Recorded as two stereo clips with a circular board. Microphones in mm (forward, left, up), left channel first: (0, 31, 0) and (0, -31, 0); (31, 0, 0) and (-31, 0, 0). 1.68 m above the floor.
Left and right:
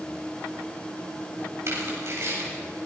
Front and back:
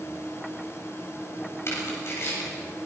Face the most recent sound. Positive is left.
turn(degrees=-45)